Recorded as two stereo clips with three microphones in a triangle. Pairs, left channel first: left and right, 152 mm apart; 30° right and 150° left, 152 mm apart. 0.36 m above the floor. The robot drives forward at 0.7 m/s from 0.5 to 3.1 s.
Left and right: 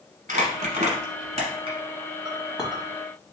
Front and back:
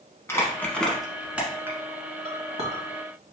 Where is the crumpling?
105° right, 1.1 m; by 1.8 s 135° right, 1.6 m.